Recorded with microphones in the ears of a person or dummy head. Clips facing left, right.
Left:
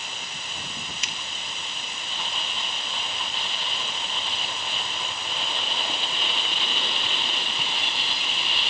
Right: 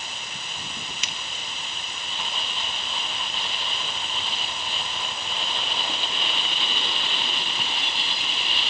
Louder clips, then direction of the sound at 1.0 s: Even; 65° right (ahead or behind).